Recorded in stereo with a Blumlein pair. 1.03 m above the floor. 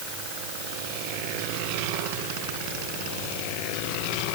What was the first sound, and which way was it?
Only background noise.